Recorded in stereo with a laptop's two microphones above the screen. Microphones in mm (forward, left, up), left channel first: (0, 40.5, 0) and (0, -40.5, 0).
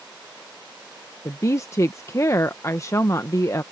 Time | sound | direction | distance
1.2 | a woman speaking | 35° left (ahead or behind) | ?